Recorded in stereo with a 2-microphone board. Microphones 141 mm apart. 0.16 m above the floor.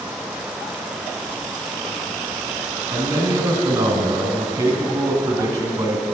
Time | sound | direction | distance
2.9 | a man speaking | 25° right (ahead or behind) | 1.4 m